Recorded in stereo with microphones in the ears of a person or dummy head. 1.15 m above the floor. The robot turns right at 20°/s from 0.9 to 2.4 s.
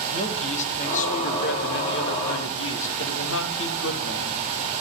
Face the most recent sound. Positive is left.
turn(degrees=65)